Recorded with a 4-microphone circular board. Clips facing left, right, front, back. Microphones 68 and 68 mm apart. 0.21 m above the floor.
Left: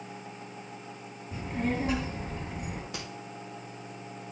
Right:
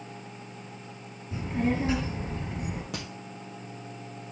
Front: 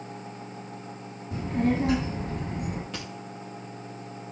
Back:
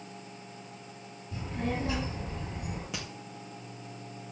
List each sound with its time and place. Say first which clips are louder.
1.3 s a child speaking: right 3 dB, front 8 dB; 10° right, 1.6 m
2.9 s a crack: right 3 dB, front 2 dB; 100° right, 4.5 m